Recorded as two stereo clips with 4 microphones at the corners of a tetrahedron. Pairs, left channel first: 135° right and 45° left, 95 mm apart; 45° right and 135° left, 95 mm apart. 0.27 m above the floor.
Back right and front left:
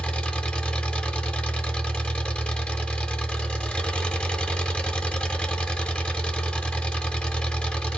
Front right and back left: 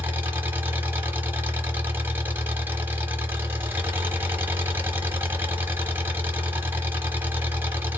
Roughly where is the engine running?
Behind.